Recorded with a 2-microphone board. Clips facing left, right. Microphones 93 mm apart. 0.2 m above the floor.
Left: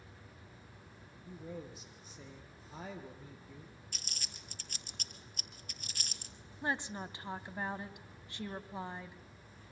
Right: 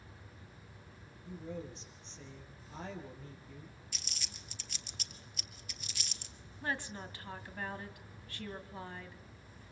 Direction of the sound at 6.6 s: 20° left (ahead or behind).